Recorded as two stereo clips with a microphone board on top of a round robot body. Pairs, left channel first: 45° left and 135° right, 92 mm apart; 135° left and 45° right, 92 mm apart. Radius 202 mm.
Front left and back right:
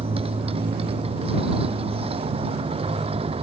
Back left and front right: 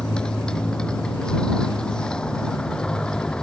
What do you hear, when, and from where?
0.0 s a motorcycle: 145° right